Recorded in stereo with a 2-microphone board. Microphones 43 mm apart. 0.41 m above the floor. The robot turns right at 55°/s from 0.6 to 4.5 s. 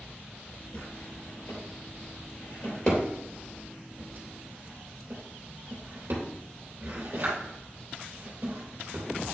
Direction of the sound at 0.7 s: 40° left (ahead or behind).